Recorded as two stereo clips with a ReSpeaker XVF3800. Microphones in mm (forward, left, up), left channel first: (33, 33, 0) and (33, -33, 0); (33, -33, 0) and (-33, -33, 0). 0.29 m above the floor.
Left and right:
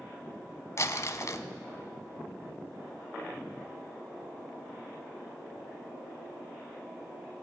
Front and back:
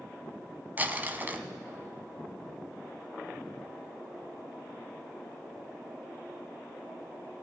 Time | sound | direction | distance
0.8 | crumpling | 125° left | 1.2 m